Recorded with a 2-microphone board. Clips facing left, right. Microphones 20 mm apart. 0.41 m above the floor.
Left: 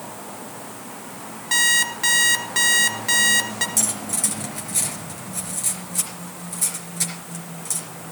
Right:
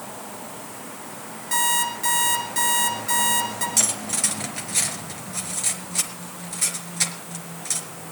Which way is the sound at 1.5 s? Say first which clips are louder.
Left 4 dB; 30° left (ahead or behind).